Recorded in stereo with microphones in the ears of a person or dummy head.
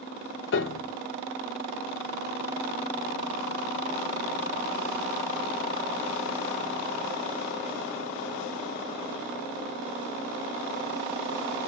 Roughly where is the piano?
Left.